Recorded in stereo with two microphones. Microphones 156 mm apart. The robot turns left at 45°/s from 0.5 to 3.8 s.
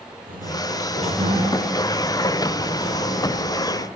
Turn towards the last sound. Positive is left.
turn(degrees=100)